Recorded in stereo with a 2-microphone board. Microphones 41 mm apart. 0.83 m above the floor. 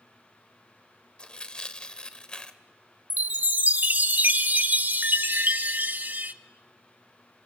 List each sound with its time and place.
1.2 s tearing paper: 25° left (ahead or behind), 0.9 m
3.1 s a chime: 50° right (ahead or behind), 0.6 m